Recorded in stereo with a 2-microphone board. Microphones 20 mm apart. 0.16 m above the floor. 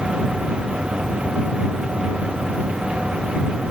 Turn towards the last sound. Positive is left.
No sound to turn to.